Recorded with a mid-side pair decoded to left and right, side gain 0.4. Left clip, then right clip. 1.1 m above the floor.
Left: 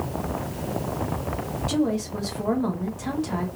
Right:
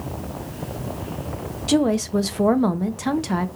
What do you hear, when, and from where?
1.7 s a woman speaking: 65° right, 1.0 m